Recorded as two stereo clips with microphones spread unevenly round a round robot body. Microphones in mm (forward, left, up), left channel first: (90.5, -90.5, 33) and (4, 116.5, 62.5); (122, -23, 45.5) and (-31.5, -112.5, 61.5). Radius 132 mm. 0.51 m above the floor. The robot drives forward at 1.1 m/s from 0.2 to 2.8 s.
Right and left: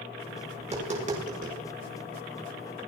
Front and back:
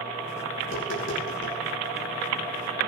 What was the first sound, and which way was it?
Tapping, 50° left.